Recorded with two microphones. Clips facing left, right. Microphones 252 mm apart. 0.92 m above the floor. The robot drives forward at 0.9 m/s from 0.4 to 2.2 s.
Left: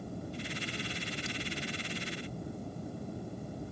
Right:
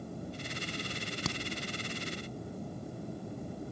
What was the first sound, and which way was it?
A crack, 85° right.